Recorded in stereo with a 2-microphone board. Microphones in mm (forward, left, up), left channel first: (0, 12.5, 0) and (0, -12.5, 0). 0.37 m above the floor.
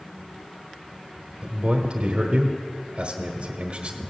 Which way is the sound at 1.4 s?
45° right (ahead or behind).